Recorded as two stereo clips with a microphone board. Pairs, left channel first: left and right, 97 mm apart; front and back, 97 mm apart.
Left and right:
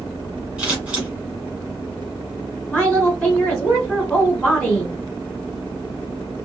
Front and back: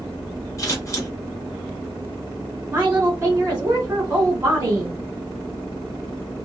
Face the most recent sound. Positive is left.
turn(degrees=155)